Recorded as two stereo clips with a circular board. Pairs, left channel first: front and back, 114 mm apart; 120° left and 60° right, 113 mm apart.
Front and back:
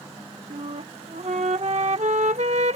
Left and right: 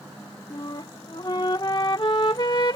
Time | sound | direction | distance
0.5 | a flute | 170° left | ?